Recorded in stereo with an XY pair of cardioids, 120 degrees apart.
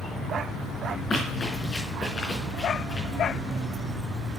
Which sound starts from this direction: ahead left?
Running footsteps, at 1.1 s.